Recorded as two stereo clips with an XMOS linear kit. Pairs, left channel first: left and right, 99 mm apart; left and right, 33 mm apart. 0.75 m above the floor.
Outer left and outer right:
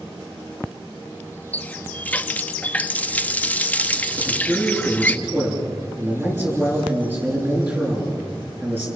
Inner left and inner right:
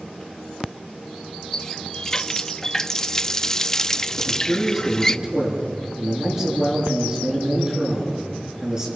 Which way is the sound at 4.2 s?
20° right (ahead or behind).